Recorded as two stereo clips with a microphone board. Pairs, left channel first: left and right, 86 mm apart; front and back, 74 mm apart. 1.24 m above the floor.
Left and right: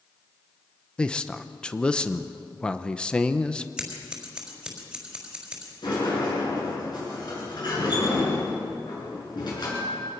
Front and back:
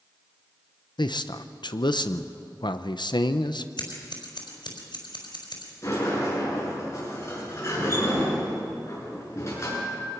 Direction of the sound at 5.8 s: 50° left.